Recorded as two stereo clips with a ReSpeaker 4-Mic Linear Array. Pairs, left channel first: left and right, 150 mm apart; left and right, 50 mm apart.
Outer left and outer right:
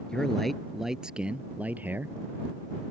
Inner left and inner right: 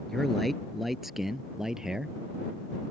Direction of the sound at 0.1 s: 5° left (ahead or behind).